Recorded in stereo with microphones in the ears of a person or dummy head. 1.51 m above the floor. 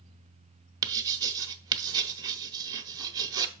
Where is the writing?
20° right (ahead or behind), 0.7 m.